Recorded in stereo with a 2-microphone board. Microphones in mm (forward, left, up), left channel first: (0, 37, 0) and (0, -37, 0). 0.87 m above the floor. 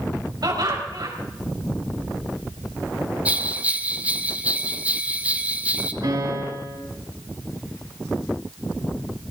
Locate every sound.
0.4 s laughter: 65° right (ahead or behind), 4.5 m
3.2 s a bell: 20° right (ahead or behind), 0.8 m
6.0 s a piano: 75° right (ahead or behind), 5.5 m